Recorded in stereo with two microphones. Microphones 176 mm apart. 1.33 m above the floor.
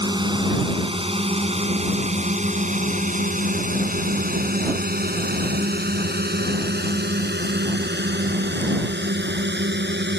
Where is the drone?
25° right (ahead or behind); by 10.2 s 85° right.